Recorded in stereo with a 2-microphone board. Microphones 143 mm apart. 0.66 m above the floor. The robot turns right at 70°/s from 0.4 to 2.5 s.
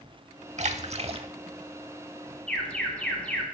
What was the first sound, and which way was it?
A splash, 95° right.